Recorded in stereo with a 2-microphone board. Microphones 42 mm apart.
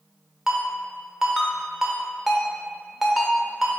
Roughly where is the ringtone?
Centre.